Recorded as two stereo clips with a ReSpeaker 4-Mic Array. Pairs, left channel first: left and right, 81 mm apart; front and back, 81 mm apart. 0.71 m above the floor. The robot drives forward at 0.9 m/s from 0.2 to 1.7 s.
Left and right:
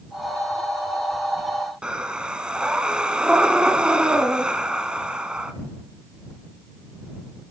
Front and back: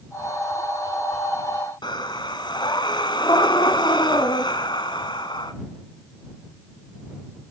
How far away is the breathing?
About 1.4 m.